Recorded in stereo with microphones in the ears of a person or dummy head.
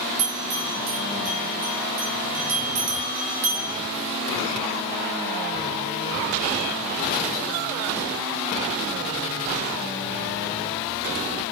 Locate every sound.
0.2 s a bell: 70° right (ahead or behind), 2 m